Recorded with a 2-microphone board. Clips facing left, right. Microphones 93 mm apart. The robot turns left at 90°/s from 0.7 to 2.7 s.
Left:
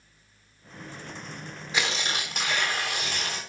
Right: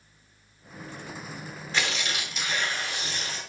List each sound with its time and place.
1.7 s tearing paper: 170° left, 3.5 m; by 3.4 s 80° left, 3.5 m